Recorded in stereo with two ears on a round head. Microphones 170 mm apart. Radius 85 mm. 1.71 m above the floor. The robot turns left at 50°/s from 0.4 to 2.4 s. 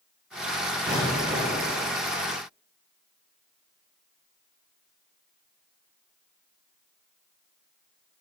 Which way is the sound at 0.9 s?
10° left.